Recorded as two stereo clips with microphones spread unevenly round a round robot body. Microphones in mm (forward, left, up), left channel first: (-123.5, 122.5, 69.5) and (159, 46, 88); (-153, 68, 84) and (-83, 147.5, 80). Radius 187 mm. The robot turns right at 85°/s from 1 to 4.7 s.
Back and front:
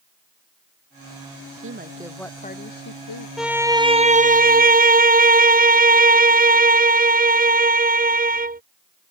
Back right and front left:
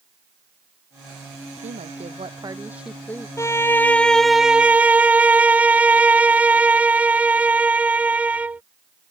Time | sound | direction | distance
1.5 | a woman speaking | 20° left | ?
3.4 | a violin | 115° right | ?